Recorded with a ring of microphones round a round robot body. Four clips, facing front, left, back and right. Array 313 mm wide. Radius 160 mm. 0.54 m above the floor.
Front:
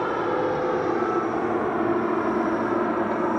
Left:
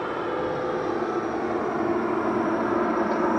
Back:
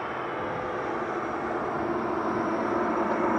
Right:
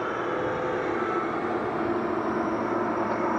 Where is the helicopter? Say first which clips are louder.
Left 1 dB, front 8 dB; 5° left; by 3.4 s 60° left.